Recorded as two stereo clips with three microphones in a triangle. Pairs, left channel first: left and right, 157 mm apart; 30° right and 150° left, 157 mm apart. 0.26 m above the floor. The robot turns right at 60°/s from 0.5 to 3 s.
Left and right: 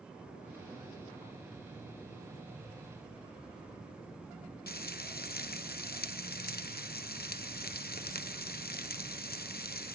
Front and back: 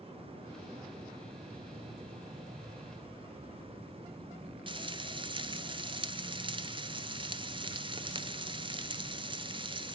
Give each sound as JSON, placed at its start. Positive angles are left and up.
{"t": 4.7, "sound": "frying", "azimuth_deg": 95, "distance_m": 0.8}